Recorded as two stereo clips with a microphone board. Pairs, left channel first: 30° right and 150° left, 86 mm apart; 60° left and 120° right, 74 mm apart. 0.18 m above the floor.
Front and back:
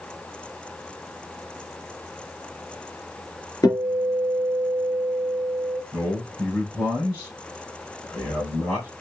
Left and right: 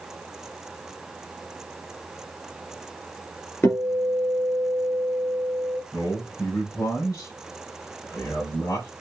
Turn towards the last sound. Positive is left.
turn(degrees=25)